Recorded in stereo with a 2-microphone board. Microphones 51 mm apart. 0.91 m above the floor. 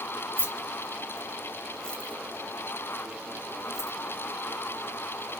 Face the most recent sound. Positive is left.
turn(degrees=80)